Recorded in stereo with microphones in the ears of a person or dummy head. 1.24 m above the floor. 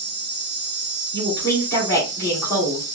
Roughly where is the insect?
Centre.